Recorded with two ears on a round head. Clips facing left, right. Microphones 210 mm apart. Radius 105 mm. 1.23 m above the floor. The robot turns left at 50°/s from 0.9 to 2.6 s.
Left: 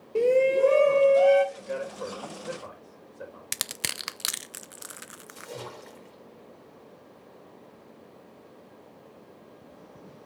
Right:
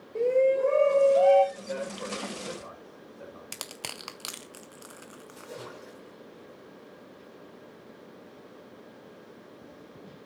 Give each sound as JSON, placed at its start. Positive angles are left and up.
{"t": 0.1, "sound": "a shout", "side_deg": 45, "distance_m": 1.0}
{"t": 1.6, "sound": "a man speaking", "side_deg": 20, "distance_m": 5.0}
{"t": 3.5, "sound": "crushing", "side_deg": 25, "distance_m": 0.5}
{"t": 5.3, "sound": "a splash", "side_deg": 40, "distance_m": 4.5}